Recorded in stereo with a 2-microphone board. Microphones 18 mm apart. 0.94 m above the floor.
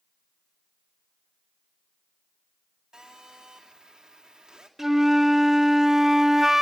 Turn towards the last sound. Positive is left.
turn(degrees=-10)  # may be behind; listen again after turning